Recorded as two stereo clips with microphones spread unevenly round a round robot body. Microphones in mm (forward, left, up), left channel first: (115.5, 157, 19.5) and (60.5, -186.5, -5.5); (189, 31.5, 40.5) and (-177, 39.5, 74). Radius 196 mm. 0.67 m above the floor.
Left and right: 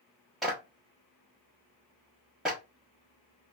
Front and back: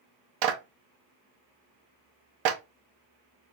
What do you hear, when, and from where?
0.4 s a clap: 175° left, 0.6 m